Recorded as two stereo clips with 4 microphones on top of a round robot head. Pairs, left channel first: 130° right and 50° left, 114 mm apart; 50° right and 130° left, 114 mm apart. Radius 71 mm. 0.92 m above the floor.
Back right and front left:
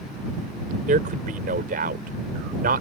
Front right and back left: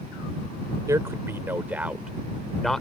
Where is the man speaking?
65° left; by 2.8 s 40° left.